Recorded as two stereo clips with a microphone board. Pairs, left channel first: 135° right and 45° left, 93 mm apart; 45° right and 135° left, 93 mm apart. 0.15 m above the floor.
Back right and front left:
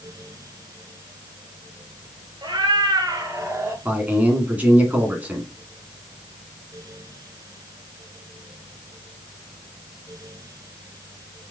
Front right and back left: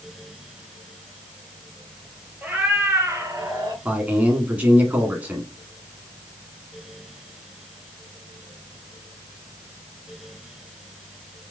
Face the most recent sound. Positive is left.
turn(degrees=90)